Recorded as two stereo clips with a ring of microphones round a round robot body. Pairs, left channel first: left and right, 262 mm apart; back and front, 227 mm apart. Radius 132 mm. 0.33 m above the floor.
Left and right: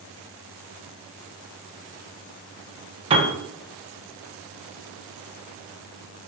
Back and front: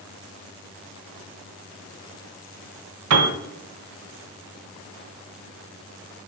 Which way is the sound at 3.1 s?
20° right.